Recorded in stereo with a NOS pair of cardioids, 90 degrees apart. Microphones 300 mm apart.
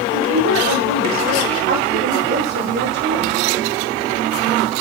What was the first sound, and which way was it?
A woman speaking, 50° right.